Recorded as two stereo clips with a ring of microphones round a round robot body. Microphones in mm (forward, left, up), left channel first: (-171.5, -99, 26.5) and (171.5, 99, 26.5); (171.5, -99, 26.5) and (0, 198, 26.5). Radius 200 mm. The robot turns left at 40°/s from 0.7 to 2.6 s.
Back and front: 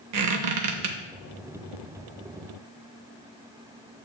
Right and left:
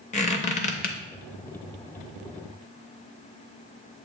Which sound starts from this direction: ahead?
A squeak, at 0.1 s.